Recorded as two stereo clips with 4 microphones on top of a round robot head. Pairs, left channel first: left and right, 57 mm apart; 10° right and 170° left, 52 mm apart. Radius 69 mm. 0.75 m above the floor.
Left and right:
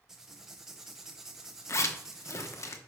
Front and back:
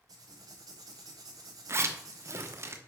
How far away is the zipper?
About 0.9 m.